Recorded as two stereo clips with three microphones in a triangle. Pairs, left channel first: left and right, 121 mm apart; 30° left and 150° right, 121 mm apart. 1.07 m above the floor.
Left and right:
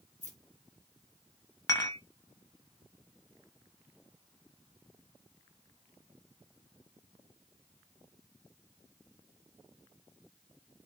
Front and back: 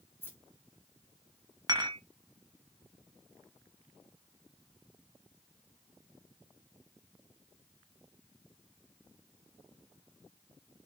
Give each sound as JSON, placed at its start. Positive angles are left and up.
{"t": 0.2, "sound": "keys jangling", "azimuth_deg": 100, "distance_m": 0.8}
{"t": 1.7, "sound": "dishes clattering", "azimuth_deg": 150, "distance_m": 0.7}